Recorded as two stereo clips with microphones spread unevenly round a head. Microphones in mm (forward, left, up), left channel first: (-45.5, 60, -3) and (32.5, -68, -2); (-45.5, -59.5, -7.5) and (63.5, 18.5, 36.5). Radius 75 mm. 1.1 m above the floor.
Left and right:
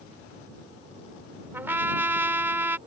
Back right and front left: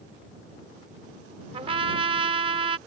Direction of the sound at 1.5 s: 15° left.